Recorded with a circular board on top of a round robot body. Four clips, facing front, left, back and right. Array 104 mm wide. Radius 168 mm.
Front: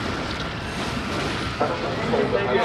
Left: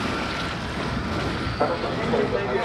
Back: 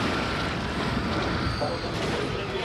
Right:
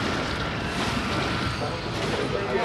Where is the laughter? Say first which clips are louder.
Left 5 dB, front 5 dB; 45° left, 1.5 m; by 2.7 s 5° right, 0.7 m.